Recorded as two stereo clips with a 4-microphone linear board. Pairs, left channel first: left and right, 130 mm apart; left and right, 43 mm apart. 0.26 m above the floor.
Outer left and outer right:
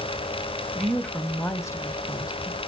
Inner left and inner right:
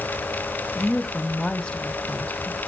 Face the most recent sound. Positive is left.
turn(degrees=30)  # may be behind; listen again after turning